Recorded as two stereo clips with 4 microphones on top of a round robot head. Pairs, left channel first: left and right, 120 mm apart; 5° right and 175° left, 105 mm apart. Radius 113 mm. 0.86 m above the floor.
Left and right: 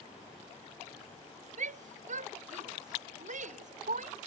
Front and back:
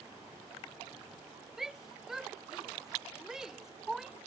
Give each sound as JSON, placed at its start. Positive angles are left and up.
{"t": 1.6, "sound": "a shout", "azimuth_deg": -100}